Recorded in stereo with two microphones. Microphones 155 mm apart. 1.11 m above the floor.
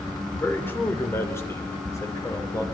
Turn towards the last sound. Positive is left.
turn(degrees=20)  # may be behind; listen again after turning